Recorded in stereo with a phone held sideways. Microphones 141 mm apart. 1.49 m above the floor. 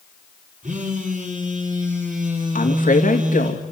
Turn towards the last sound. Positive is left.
turn(degrees=70)  # may be behind; listen again after turning